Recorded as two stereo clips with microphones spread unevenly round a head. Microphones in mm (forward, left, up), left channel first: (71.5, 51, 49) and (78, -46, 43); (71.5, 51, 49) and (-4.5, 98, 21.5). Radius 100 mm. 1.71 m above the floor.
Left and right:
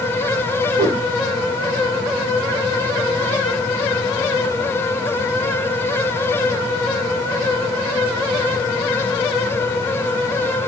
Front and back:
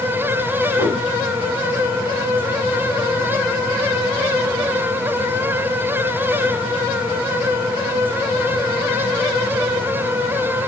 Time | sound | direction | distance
0.8 | a whoosh | 140° right | 1.1 m